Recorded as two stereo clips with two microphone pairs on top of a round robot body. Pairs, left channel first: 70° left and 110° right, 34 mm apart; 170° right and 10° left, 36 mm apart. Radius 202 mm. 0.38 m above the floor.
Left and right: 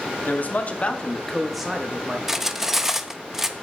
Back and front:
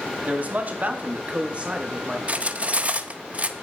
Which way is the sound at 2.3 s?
30° right.